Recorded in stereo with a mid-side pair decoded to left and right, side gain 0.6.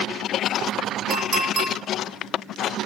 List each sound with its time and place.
1.1 s a clink: 35° right, 1.2 m